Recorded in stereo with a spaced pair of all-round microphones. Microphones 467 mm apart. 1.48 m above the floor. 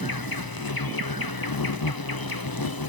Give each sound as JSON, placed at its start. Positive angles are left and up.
{"t": 0.0, "sound": "an insect", "side_deg": 50}